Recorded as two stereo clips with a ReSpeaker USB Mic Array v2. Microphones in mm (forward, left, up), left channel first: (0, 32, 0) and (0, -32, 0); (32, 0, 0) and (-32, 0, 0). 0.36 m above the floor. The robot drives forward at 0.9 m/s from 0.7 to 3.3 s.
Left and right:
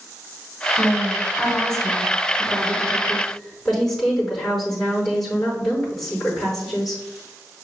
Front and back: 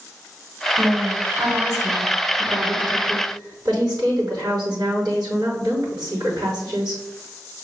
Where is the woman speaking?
170° left, 2.5 m; by 7.0 s 175° left, 4.5 m.